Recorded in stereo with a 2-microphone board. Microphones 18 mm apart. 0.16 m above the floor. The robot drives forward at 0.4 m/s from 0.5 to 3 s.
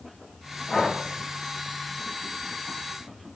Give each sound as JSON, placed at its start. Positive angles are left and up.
{"t": 0.7, "sound": "breathing", "side_deg": 15, "distance_m": 5.0}